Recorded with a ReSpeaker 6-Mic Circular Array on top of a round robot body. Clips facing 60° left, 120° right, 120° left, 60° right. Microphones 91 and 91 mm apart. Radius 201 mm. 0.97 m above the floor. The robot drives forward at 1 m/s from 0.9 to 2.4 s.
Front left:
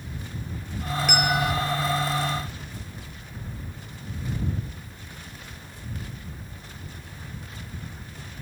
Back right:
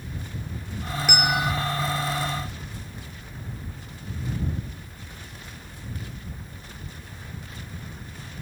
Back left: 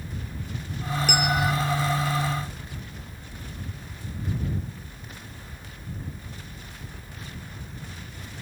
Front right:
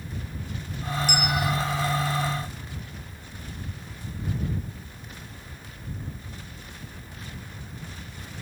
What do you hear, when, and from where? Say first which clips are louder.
1.1 s a bell: even, back left 3 dB; 155° left, 0.6 m; by 1.5 s 170° left, 0.9 m